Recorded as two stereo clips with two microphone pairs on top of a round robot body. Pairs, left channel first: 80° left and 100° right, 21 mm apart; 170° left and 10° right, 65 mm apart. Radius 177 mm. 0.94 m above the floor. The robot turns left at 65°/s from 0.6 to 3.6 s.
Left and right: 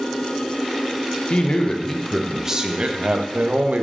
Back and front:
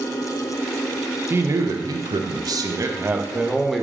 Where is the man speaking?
45° left, 0.8 m; by 3.8 s 105° right, 0.8 m.